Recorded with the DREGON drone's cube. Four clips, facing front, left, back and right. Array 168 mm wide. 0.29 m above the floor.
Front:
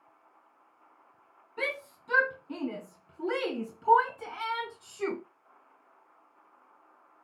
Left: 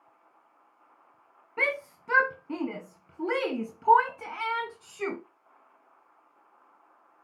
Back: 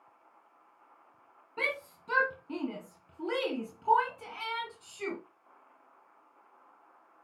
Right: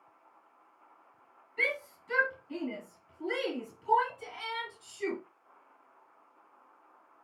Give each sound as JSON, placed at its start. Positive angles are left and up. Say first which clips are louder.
{"t": 1.6, "sound": "a shout", "louder": "left 4 dB, front 1 dB", "azimuth_deg": 110, "distance_m": 2.5}